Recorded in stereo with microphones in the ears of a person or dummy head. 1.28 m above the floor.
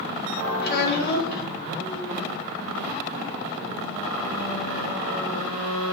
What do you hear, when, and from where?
0.6 s a child speaking: 55° left (ahead or behind), 0.8 m